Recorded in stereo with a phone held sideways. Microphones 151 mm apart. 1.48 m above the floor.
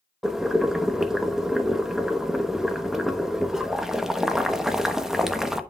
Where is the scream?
I don't hear a scream.